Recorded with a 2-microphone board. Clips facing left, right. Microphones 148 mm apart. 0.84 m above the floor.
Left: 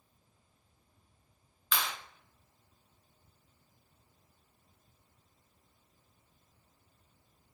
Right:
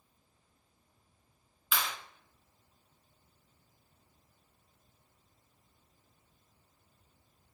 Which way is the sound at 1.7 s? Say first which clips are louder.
Even; 5° right (ahead or behind).